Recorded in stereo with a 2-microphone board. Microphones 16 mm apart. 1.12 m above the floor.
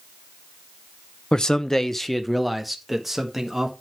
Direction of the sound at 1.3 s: 45° left (ahead or behind).